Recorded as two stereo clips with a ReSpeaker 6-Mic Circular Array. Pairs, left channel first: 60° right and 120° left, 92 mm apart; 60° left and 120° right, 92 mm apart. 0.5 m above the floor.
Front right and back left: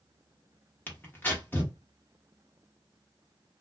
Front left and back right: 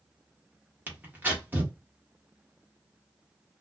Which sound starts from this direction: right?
Tearing paper, at 0.9 s.